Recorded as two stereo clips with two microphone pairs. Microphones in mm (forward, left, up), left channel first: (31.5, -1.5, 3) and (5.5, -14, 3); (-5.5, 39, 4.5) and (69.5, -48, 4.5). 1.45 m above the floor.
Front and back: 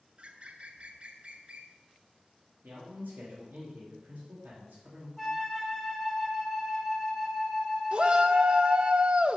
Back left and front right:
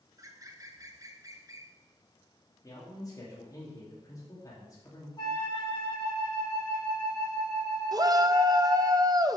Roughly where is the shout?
Right.